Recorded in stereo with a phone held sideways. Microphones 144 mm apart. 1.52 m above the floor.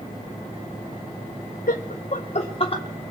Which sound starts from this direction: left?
Laughter, at 1.7 s.